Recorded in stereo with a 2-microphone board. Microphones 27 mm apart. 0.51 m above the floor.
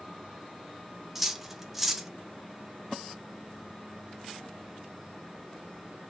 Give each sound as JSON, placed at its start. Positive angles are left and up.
{"t": 1.1, "sound": "cutlery clinking", "side_deg": -5, "distance_m": 0.5}